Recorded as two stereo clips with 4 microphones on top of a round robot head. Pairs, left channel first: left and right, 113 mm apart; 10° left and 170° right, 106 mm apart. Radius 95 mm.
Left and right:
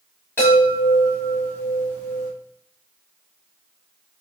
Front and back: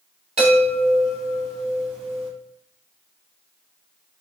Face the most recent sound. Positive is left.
turn(degrees=165)